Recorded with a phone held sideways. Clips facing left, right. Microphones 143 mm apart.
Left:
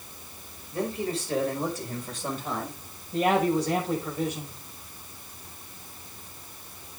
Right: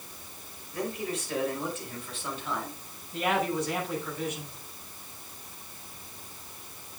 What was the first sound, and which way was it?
A man speaking, 30° left (ahead or behind).